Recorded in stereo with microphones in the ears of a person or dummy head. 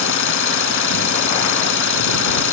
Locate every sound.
0.0 s an engine running: 70° left (ahead or behind)